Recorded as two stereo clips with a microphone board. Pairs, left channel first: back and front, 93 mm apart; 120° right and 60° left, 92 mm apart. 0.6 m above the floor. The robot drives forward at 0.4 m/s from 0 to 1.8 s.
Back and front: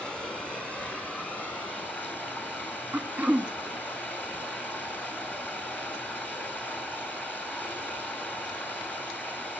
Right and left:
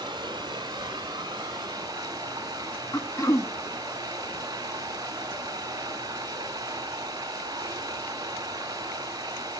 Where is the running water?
100° left, 4.5 m; by 9.6 s 110° left, 4.5 m.